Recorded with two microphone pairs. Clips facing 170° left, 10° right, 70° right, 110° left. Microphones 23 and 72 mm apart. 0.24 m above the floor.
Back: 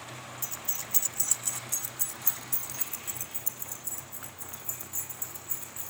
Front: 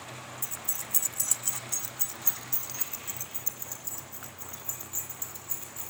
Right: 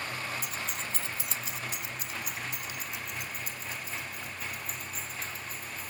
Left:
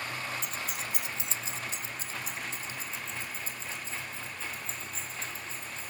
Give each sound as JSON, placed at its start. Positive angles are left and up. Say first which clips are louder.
{"t": 0.4, "sound": "keys jangling", "louder": "back 1 dB, even", "azimuth_deg": -155, "distance_m": 0.9}